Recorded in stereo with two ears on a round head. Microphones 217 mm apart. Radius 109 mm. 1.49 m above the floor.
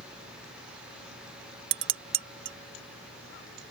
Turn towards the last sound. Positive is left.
turn(degrees=-50)  # may be behind; listen again after turning